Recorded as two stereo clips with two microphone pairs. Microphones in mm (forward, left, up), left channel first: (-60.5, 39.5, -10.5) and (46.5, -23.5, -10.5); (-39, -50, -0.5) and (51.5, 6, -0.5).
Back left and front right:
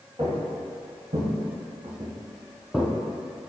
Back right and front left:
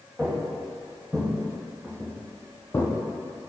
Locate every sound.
0.2 s footsteps: 50° right, 1.5 m; by 2.9 s 125° right, 0.5 m